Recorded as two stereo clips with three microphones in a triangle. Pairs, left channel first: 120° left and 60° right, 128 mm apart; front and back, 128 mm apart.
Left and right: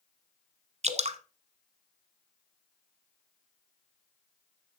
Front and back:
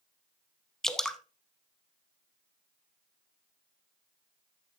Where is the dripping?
85° right, 0.7 m.